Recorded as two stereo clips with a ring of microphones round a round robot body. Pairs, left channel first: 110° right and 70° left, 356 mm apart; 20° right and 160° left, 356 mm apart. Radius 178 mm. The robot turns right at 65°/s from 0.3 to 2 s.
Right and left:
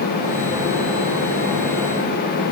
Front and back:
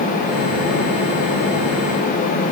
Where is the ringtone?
I don't hear a ringtone.